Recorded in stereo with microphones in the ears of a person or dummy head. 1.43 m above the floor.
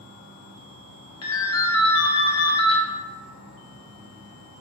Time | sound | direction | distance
0.0 | an insect | 45° right (ahead or behind) | 2.0 m
1.2 | a ringtone | 15° left (ahead or behind) | 0.6 m